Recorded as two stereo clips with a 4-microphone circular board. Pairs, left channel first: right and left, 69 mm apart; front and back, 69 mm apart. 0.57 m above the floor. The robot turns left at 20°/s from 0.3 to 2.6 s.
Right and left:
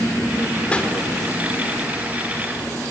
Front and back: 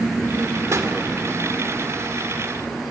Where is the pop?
160° right, 2.0 m.